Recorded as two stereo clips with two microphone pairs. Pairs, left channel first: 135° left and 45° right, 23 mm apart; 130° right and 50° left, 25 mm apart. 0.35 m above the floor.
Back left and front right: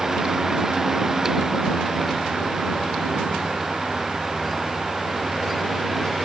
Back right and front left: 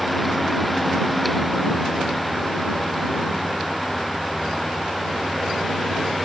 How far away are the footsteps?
I don't hear footsteps.